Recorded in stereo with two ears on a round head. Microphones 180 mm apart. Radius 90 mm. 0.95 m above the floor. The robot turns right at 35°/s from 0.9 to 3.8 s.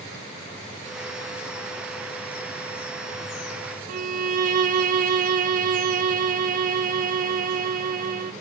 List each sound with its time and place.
3.9 s a violin: 45° right (ahead or behind), 1.3 m